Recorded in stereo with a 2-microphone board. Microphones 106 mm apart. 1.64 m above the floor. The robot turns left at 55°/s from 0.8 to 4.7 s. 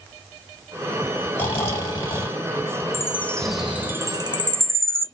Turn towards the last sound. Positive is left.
turn(degrees=-60)  # may be behind; listen again after turning